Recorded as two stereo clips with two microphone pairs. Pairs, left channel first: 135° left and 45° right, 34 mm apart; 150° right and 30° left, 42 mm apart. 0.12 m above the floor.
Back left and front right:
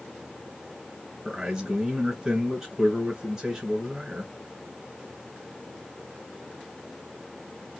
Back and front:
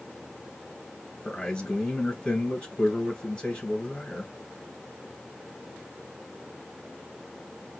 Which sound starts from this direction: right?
A man speaking, at 1.2 s.